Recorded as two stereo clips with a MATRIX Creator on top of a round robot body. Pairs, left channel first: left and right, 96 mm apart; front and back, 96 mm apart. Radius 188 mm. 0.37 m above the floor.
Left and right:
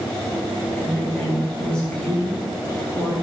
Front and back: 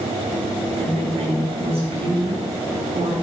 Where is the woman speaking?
170° left, 5 m.